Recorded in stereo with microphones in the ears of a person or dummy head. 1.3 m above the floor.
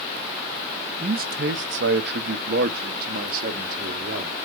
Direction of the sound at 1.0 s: 35° right (ahead or behind).